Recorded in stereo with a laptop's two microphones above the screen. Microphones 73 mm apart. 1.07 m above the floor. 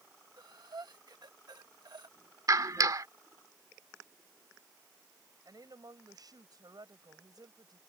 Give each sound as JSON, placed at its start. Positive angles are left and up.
{"t": 0.4, "sound": "breathing", "side_deg": -75}
{"t": 2.5, "sound": "a clap", "side_deg": -55}
{"t": 5.5, "sound": "a woman speaking", "side_deg": -65}